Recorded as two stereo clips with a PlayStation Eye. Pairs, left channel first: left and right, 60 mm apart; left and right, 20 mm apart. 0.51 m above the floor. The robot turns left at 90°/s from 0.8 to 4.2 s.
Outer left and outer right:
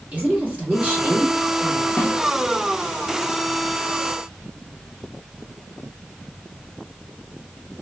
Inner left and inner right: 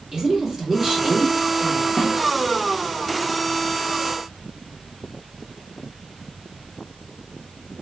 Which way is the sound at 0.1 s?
25° right (ahead or behind).